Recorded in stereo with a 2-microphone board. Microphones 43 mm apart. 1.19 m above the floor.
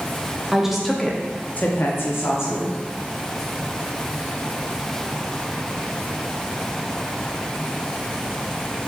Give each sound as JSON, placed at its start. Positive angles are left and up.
{"t": 0.5, "sound": "a woman speaking", "side_deg": -10, "distance_m": 1.0}